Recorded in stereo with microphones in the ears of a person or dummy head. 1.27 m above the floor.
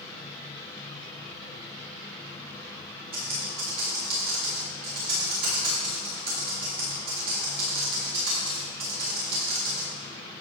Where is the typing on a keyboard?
50° right (ahead or behind), 1.9 m.